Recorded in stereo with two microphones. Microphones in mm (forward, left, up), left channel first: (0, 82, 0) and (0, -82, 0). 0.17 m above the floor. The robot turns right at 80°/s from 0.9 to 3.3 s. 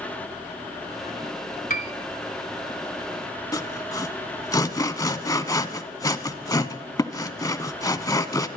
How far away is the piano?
About 0.8 m.